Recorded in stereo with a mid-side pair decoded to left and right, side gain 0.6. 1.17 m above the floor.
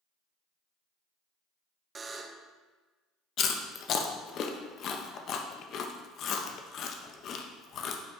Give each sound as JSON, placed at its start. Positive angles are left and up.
{"t": 1.9, "sound": "a buzzer", "azimuth_deg": -25, "distance_m": 0.6}
{"t": 3.4, "sound": "chewing", "azimuth_deg": 55, "distance_m": 0.7}